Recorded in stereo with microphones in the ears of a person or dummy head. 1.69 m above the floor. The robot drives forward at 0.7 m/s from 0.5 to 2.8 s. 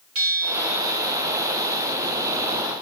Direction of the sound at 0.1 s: 75° right (ahead or behind).